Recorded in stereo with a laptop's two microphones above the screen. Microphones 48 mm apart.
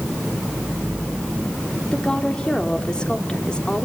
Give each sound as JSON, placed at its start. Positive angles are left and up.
{"t": 1.9, "sound": "a woman speaking", "side_deg": 15, "distance_m": 2.5}